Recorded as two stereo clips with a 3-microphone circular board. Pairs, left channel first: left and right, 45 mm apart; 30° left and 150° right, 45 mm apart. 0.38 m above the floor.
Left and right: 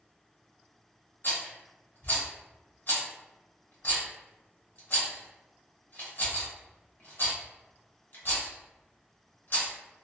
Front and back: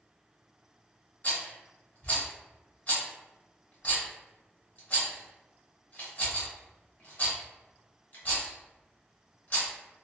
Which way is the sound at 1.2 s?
70° left.